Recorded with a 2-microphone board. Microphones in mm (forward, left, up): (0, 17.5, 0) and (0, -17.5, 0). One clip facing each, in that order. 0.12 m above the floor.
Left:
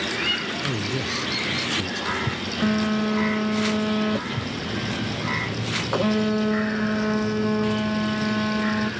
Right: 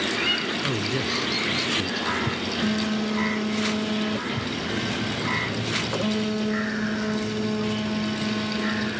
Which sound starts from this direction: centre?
A man speaking, at 0.6 s.